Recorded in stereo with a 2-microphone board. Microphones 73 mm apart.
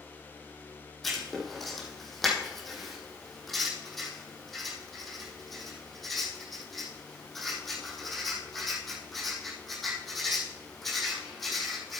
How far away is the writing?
About 3.5 m.